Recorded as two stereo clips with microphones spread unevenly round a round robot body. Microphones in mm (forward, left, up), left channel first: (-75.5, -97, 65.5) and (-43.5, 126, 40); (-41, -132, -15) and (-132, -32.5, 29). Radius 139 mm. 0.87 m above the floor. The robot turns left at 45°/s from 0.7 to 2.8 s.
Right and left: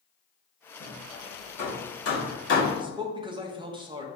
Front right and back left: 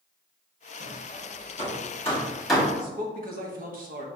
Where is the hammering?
55° right, 1.8 m; by 2.6 s 135° right, 1.8 m.